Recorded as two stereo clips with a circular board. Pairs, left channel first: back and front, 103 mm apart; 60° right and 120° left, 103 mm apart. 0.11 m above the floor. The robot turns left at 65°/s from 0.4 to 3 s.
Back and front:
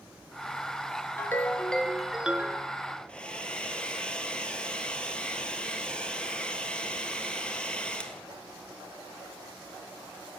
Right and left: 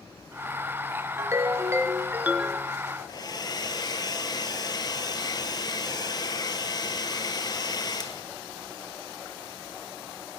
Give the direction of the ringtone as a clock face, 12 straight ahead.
7 o'clock.